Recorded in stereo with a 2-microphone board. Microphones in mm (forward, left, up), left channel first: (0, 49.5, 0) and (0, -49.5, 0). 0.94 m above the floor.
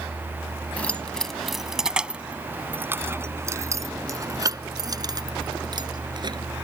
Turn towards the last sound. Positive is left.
turn(degrees=-45)  # may be behind; listen again after turning